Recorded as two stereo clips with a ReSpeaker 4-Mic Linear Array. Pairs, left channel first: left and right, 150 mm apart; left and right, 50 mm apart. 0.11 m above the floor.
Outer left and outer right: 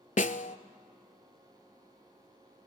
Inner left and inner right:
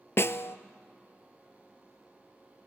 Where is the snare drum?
65° left (ahead or behind), 0.5 m.